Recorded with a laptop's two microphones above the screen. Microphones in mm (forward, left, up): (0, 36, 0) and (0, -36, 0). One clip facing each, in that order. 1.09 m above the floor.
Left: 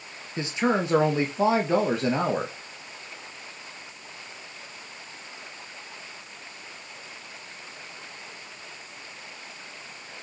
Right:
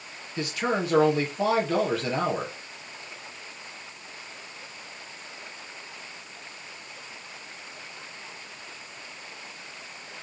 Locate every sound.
0.4 s a man speaking: 25° left (ahead or behind), 1.4 m